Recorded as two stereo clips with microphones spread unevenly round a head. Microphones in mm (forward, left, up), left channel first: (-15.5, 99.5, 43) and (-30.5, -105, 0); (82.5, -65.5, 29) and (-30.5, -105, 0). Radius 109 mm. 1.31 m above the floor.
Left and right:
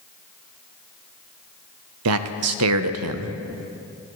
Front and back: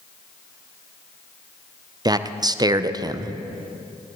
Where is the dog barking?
I don't hear a dog barking.